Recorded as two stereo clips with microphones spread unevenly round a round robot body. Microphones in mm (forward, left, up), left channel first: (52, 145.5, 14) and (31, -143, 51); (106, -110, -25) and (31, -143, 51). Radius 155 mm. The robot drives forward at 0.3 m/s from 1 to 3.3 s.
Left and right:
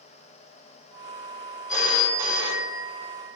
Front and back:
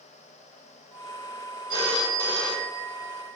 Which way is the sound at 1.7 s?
105° left.